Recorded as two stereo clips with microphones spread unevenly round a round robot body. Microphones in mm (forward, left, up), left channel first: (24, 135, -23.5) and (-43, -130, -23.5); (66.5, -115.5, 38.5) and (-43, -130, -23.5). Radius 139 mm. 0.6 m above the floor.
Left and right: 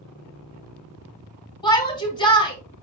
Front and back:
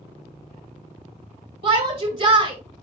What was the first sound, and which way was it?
A shout, 150° left.